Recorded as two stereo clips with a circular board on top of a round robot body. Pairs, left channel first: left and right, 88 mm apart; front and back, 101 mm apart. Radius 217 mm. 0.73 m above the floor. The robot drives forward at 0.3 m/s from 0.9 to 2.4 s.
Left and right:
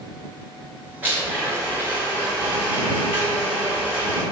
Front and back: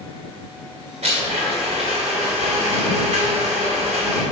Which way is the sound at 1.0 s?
160° right.